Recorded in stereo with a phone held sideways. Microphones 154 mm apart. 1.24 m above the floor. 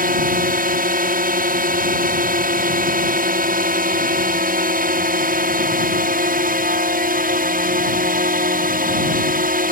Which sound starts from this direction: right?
A drone, at 0.0 s.